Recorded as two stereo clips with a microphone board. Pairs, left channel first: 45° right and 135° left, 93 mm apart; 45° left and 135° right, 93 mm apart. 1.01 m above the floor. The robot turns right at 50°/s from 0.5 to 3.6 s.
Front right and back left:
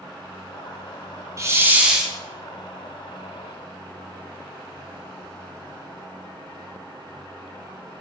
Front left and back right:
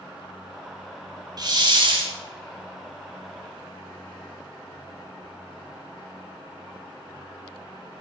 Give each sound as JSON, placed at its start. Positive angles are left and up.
{"t": 1.4, "sound": "a hiss", "azimuth_deg": -170, "distance_m": 1.7}